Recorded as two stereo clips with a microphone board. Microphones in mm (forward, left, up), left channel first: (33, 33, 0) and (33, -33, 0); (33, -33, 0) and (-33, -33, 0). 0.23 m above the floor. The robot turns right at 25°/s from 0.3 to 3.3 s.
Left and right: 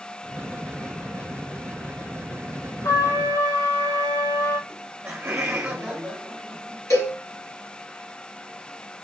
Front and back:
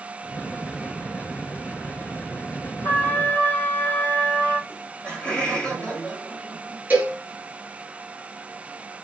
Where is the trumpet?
55° left, 1.9 m; by 4.6 s 65° left, 1.9 m.